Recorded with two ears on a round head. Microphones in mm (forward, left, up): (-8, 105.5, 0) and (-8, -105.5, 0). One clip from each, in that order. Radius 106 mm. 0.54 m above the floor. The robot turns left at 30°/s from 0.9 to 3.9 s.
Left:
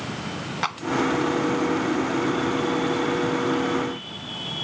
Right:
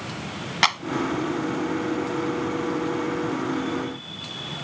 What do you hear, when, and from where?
0.6 s a clap: 80° right